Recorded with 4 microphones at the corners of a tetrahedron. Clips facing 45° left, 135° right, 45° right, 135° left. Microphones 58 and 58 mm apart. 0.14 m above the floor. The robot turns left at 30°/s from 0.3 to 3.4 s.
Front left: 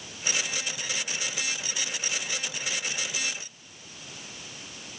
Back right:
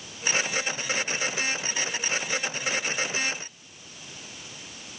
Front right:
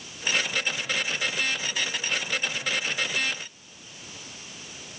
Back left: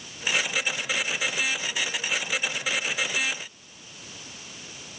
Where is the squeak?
No squeak in this recording.